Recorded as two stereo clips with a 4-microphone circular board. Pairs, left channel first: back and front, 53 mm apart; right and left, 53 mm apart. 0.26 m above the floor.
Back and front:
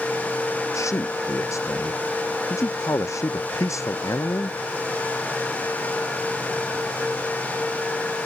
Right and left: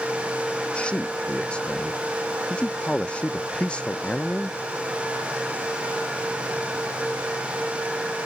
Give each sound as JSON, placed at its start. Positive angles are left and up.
{"t": 0.7, "sound": "a man speaking", "azimuth_deg": -160}